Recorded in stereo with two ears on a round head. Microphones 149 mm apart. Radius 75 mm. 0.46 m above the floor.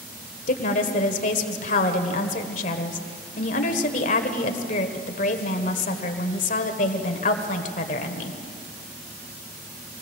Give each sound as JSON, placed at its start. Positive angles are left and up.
{"t": 0.5, "sound": "a woman speaking", "side_deg": 50, "distance_m": 1.6}